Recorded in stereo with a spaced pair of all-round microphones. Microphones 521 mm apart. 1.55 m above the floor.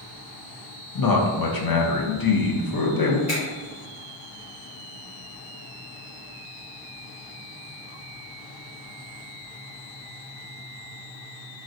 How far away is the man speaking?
About 0.5 m.